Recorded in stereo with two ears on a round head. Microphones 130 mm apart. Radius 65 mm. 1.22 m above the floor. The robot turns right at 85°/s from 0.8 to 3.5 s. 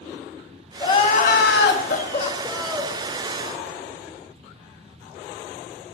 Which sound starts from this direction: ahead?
Crying, at 0.8 s.